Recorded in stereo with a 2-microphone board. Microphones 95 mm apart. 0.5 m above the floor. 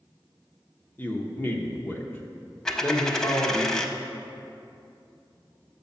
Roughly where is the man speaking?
Left.